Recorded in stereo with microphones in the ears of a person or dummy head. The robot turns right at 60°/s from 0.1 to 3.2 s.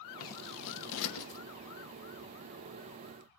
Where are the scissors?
45° left (ahead or behind), 1.6 m; by 1.4 s 50° left (ahead or behind), 1.6 m.